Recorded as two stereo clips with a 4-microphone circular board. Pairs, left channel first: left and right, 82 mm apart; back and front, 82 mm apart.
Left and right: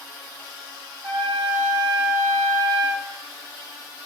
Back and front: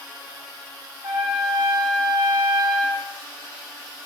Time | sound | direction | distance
1.0 | a trumpet | 45° right | 9 m